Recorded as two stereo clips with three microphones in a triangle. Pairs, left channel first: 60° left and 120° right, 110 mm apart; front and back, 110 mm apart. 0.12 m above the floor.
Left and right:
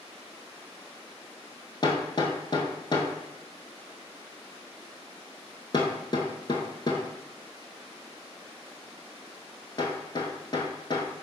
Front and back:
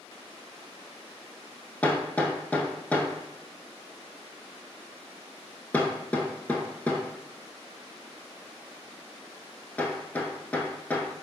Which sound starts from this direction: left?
Hammering, at 1.8 s.